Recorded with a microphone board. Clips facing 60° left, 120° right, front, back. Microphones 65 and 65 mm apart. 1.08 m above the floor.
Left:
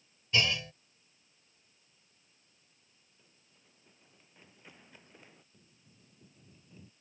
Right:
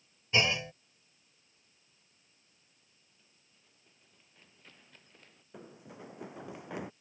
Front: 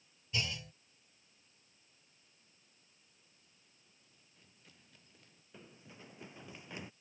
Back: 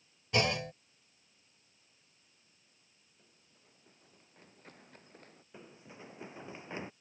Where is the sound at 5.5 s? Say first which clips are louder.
Right 16 dB, back 3 dB; 110° right; by 6.9 s 120° right.